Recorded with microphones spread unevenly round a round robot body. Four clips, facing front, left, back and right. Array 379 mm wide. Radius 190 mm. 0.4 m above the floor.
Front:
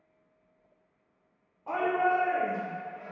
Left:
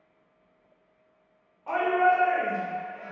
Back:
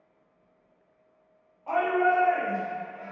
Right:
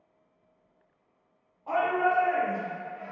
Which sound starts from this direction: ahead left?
A shout, at 1.7 s.